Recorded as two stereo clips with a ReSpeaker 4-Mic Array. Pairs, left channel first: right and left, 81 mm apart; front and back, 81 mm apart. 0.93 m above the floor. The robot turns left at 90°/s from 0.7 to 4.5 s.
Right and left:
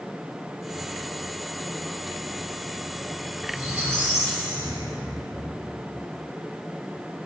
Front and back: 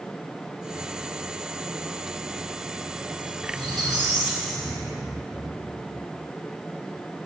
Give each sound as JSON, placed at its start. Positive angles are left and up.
{"t": 3.5, "sound": "a squeak", "azimuth_deg": 170, "distance_m": 1.9}